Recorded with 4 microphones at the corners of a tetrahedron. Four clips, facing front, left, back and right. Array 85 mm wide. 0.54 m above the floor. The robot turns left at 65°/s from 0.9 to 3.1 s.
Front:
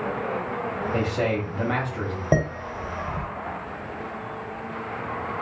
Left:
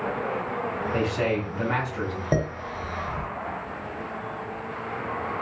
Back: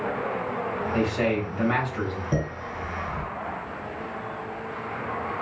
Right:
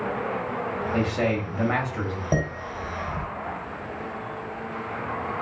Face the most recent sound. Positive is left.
turn(degrees=-40)